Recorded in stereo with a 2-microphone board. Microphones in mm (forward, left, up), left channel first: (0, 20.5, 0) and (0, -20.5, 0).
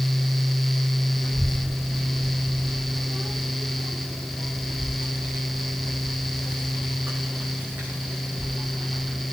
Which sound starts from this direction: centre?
A child speaking, at 1.2 s.